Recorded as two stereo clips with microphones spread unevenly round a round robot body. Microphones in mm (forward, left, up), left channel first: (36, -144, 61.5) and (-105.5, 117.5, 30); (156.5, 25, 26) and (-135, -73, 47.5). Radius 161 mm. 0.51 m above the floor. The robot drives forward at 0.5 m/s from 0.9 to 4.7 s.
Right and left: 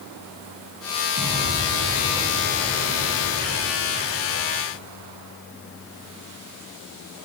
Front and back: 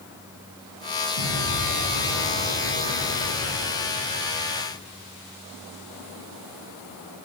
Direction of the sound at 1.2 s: 60° left.